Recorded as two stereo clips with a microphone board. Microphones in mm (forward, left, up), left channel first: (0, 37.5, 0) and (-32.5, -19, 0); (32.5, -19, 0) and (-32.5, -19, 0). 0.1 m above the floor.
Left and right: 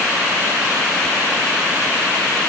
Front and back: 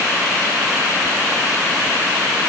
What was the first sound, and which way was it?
Only background noise.